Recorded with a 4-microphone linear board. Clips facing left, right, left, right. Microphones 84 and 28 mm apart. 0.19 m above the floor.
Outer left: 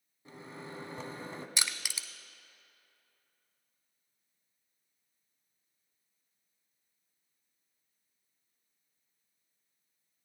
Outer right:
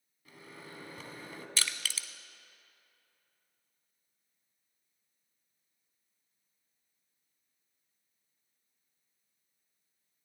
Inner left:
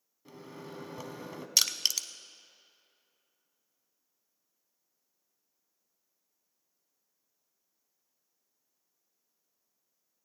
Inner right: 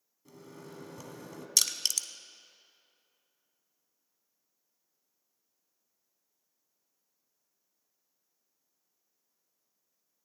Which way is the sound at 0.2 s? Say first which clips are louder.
Outer left 4 dB, inner left 3 dB; 30° left (ahead or behind).